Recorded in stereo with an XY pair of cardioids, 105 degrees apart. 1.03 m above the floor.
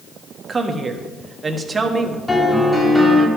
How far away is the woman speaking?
About 1.2 m.